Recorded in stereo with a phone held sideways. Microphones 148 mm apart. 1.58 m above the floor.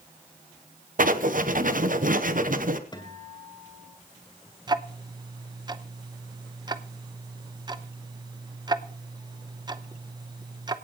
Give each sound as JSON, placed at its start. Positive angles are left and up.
{"t": 1.0, "sound": "writing", "side_deg": -65, "distance_m": 0.9}
{"t": 2.9, "sound": "a guitar", "side_deg": 30, "distance_m": 2.5}
{"t": 4.7, "sound": "ticking", "side_deg": -30, "distance_m": 0.7}